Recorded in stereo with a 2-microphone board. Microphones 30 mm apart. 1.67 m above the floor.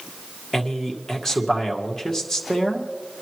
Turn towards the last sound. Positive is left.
turn(degrees=15)  # may be behind; listen again after turning